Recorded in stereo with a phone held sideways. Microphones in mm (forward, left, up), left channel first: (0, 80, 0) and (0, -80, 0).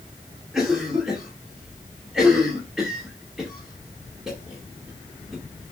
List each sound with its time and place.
0.5 s a cough: 5° right (ahead or behind), 2.5 m